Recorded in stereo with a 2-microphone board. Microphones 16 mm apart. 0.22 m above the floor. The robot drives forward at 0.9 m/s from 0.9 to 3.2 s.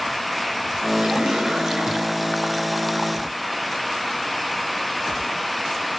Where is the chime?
I don't hear a chime.